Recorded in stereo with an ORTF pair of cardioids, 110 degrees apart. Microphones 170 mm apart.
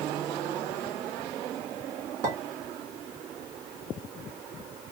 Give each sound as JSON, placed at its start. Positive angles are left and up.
{"t": 2.2, "sound": "a clink", "azimuth_deg": -60, "distance_m": 2.0}